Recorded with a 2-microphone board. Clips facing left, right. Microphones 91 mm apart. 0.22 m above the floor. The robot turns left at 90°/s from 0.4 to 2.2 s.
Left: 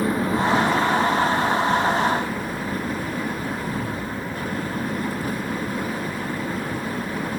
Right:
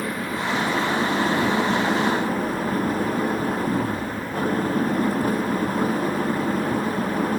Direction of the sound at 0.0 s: 30° left.